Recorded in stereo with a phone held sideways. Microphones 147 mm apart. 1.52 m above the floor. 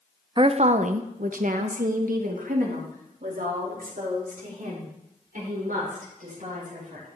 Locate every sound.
0.4 s a woman speaking: 35° right (ahead or behind), 0.5 m; by 7.0 s 65° right (ahead or behind), 5.5 m